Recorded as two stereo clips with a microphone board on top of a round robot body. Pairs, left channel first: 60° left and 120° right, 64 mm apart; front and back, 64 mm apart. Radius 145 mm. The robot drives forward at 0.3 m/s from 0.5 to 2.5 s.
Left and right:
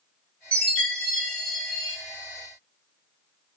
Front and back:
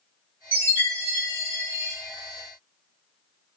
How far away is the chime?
About 1.6 m.